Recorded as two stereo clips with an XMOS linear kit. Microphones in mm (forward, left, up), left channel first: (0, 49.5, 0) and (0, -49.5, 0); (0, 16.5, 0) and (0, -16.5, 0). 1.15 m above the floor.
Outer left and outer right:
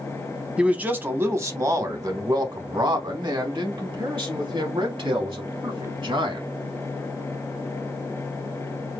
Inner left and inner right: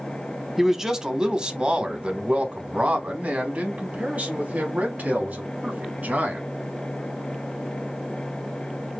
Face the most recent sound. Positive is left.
turn(degrees=-60)  # may be behind; listen again after turning